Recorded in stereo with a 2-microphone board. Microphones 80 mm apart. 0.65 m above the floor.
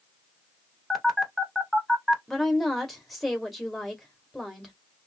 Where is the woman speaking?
Centre (ahead or behind), 1.1 m.